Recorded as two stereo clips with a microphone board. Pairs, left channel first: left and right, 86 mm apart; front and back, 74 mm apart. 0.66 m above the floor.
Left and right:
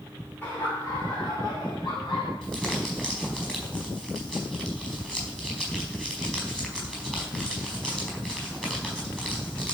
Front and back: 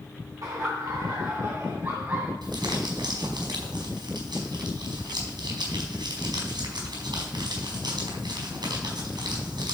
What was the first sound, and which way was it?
Laughter, 150° left.